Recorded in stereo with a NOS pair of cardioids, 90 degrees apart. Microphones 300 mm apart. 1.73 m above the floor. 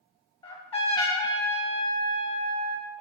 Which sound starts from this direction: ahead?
A trumpet, at 0.4 s.